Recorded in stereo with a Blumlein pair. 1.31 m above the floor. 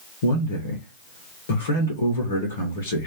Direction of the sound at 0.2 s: 65° left.